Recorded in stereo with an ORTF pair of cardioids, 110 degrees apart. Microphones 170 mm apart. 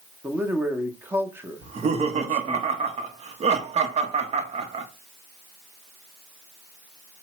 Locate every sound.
0.2 s a man speaking: 10° right, 0.8 m
1.6 s laughter: 40° right, 0.8 m